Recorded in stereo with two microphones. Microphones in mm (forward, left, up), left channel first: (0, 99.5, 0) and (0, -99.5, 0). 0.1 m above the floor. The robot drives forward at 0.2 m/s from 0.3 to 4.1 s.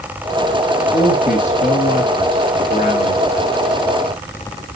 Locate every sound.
0.9 s a man speaking: 40° left (ahead or behind), 2 m